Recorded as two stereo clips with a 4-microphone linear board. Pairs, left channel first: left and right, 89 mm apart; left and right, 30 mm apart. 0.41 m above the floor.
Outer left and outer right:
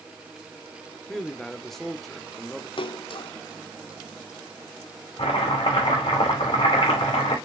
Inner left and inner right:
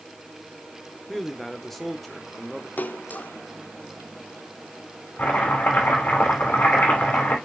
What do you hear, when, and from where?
1.1 s a man speaking: 5° left (ahead or behind), 1.0 m
2.8 s a splash: 75° left (ahead or behind), 0.6 m
5.2 s chopping: 80° left, 5 m